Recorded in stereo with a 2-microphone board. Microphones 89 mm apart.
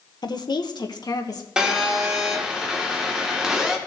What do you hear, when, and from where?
0.2 s a woman speaking: 50° left (ahead or behind), 0.8 m; by 1.5 s 45° left (ahead or behind), 1.7 m
1.6 s a phone buzzing: 10° right (ahead or behind), 2.0 m